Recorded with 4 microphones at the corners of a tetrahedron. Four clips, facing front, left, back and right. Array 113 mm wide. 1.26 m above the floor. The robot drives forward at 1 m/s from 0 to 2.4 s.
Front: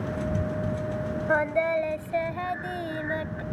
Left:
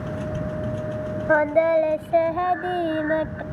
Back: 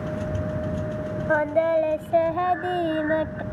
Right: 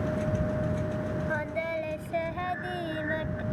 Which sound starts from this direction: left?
Singing, at 1.3 s.